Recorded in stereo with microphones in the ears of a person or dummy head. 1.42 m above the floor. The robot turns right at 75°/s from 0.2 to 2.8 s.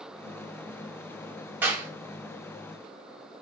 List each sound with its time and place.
1.6 s a clap: 10° right (ahead or behind), 1.2 m; by 1.9 s 25° right (ahead or behind), 1.2 m